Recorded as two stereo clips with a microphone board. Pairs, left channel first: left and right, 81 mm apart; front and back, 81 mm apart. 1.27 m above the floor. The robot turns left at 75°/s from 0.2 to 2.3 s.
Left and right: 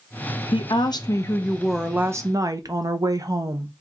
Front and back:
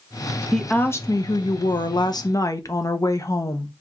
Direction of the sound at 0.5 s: 90° left.